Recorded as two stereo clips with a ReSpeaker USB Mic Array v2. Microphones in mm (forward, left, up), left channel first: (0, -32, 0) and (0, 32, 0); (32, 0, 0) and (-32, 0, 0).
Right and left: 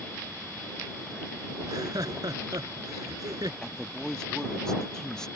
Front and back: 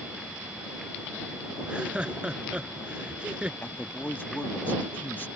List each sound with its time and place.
1.6 s laughter: 105° left
3.6 s a man speaking: 20° right